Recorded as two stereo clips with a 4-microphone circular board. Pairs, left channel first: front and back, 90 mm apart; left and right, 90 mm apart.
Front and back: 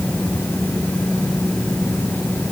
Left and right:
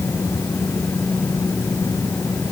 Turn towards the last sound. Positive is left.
No sound to turn to.